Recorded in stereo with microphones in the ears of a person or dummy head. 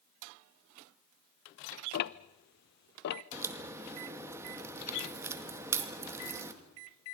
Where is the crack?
15° right (ahead or behind), 2 m.